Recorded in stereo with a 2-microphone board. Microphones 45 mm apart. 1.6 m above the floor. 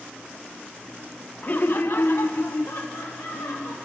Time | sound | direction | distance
1.4 | laughter | 40° left (ahead or behind) | 0.7 m